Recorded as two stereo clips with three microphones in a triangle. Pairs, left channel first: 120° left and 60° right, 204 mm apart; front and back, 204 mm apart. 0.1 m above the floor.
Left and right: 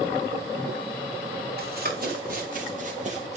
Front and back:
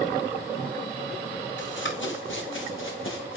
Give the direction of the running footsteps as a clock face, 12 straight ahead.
1 o'clock.